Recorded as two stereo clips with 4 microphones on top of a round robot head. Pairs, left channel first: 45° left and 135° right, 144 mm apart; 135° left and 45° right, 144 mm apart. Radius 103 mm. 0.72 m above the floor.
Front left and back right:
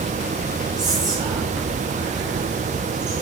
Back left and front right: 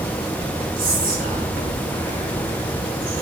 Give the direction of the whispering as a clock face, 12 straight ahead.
2 o'clock.